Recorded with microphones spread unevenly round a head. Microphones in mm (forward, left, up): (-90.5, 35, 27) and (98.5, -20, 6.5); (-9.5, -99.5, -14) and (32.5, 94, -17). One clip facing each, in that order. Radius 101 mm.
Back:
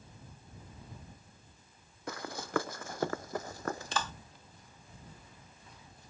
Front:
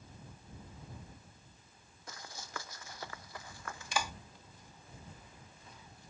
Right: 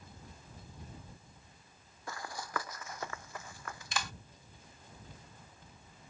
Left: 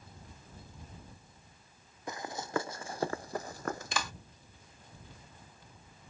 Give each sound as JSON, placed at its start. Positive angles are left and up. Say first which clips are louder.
{"t": 2.1, "sound": "running footsteps", "louder": "back 13 dB, left 5 dB", "azimuth_deg": 145}
{"t": 3.9, "sound": "a clap", "louder": "front 5 dB, left 3 dB", "azimuth_deg": 65}